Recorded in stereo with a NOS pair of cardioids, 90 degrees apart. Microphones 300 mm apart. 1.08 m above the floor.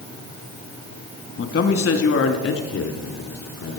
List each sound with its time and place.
1.4 s a man speaking: 50° left, 2.0 m; by 3.8 s 65° left, 4.5 m